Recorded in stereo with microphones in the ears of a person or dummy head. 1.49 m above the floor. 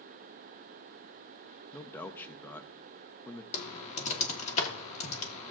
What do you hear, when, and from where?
1.7 s a man speaking: 10° left (ahead or behind), 0.7 m
3.5 s typing on a keyboard: 35° left (ahead or behind), 1.2 m